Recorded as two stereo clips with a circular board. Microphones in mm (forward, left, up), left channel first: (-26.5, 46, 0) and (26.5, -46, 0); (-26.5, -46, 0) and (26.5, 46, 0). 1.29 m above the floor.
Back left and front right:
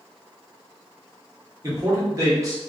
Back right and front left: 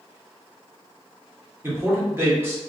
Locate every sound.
1.6 s a man speaking: 5° right, 1.2 m